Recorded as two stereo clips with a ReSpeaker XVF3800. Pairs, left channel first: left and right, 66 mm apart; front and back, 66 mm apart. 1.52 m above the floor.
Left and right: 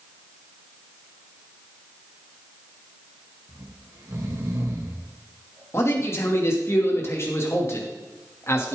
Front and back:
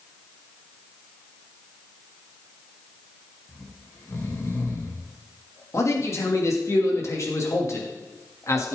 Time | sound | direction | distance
3.5 | snoring | 50° right | 2.5 m
5.7 | a man speaking | 40° left | 2.5 m